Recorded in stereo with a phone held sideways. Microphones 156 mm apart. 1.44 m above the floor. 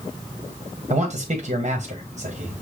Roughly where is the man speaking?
Right.